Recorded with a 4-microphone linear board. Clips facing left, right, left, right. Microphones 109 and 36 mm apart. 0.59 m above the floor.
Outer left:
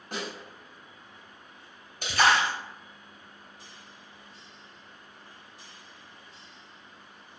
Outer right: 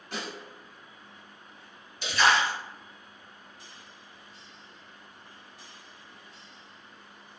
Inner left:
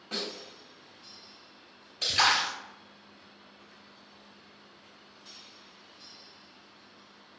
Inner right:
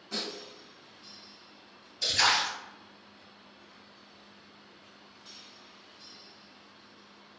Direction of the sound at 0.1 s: 45° left (ahead or behind).